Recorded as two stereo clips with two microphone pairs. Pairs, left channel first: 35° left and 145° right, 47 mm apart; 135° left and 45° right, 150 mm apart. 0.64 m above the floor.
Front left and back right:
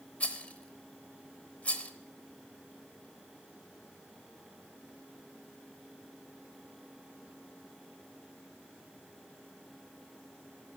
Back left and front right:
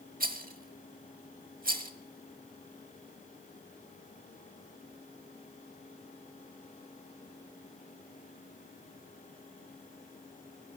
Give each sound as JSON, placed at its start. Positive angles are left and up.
{"t": 0.2, "sound": "a rattle", "azimuth_deg": -25, "distance_m": 0.9}